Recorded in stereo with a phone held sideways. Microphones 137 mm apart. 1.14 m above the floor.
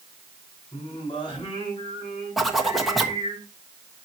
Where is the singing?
35° left (ahead or behind), 6 m.